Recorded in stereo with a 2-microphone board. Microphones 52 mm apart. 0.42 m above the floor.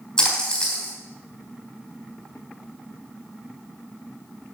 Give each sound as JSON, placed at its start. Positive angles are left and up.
{"t": 0.2, "sound": "a splash", "side_deg": 20, "distance_m": 3.5}